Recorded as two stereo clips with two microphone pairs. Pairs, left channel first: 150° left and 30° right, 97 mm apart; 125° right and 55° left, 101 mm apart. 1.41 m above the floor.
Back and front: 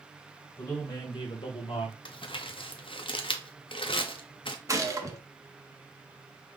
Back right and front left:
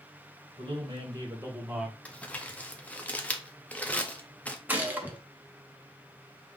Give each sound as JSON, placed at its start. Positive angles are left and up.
{"t": 0.6, "sound": "a man speaking", "azimuth_deg": 95, "distance_m": 1.9}
{"t": 2.0, "sound": "crumpling", "azimuth_deg": 160, "distance_m": 0.7}
{"t": 4.7, "sound": "a gunshot", "azimuth_deg": -5, "distance_m": 0.9}